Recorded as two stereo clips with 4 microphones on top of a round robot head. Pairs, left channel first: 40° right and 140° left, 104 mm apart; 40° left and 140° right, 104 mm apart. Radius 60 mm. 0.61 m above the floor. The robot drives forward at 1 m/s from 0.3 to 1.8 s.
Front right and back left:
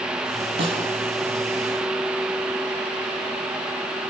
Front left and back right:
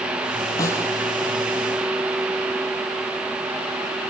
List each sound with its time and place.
0.6 s a snare drum: 100° left, 7 m